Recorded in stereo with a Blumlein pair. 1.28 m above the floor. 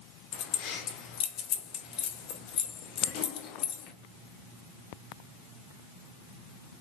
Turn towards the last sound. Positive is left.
turn(degrees=40)